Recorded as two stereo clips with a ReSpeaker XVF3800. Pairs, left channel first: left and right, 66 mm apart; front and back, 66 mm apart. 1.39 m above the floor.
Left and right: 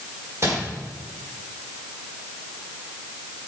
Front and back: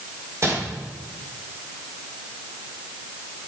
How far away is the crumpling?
About 5 m.